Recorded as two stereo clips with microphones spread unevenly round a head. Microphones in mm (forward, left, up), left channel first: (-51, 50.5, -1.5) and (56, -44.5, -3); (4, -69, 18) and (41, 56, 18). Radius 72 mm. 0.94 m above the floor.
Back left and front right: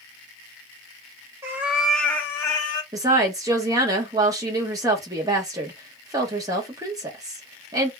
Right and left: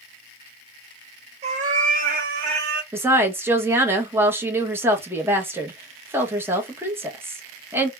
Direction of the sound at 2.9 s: 10° left.